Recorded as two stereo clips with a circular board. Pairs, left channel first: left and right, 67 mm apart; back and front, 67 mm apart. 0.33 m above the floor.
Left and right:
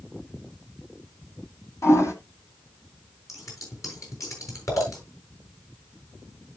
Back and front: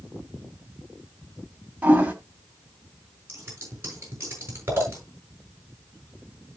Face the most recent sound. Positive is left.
turn(degrees=55)